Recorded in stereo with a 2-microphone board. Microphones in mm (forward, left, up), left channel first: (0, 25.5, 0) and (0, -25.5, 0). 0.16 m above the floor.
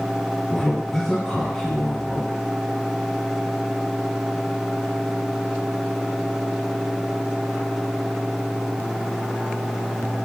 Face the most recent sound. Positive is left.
turn(degrees=10)  # may be behind; listen again after turning